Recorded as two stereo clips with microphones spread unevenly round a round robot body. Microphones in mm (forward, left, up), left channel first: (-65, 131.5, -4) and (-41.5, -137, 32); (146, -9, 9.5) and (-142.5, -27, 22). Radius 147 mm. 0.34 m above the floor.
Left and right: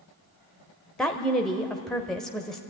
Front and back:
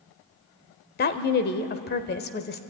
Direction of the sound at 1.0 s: 20° left.